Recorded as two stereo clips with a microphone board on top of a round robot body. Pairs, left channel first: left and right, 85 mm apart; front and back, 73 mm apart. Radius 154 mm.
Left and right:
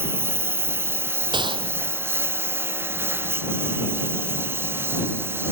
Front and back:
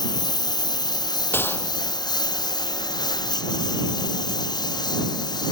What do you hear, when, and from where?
0.0 s a lawn mower: 30° right; by 5.5 s 25° right
1.3 s a gunshot: 60° right